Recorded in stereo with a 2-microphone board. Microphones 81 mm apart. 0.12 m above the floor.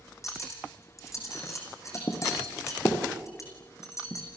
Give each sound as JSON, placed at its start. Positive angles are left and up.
{"t": 0.2, "sound": "cutlery clinking", "side_deg": 40, "distance_m": 4.5}